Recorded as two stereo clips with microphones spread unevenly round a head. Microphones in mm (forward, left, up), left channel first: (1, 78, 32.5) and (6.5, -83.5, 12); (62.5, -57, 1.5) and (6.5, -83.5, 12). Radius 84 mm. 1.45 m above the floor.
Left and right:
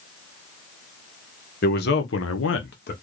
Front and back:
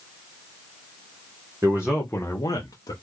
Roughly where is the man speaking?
Behind left.